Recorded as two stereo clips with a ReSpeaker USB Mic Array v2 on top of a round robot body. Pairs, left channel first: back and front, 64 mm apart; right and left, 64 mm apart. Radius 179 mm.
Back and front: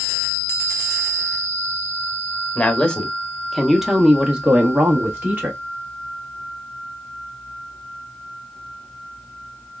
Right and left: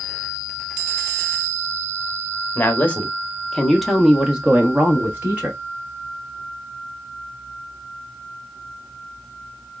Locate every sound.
2.5 s a woman speaking: 125° right, 1.1 m; by 5.6 s 45° left, 1.3 m